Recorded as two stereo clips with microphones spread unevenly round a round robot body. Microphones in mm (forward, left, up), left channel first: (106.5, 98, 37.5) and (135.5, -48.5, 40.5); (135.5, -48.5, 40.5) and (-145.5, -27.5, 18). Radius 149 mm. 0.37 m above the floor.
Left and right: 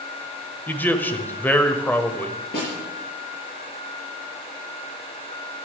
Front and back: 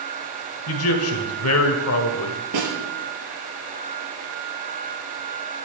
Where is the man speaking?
25° left, 1.8 m.